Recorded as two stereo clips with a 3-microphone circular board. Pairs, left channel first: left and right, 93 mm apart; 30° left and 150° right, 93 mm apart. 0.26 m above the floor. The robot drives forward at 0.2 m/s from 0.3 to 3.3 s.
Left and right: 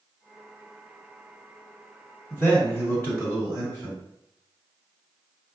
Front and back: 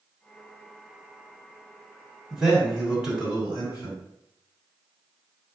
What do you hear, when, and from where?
2.3 s a man speaking: 135° left, 1.8 m; by 4.0 s 140° left, 1.9 m